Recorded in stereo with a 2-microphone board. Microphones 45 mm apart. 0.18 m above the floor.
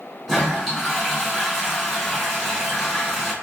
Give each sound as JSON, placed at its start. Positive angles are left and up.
{"t": 0.3, "sound": "a toilet flushing", "side_deg": 0, "distance_m": 1.3}